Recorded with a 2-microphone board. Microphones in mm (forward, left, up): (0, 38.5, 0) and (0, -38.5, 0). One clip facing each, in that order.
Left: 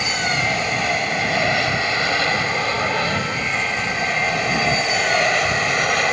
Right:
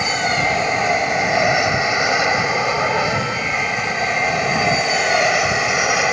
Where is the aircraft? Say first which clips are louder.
Right 3 dB; 20° right (ahead or behind); by 6.1 s 5° right (ahead or behind).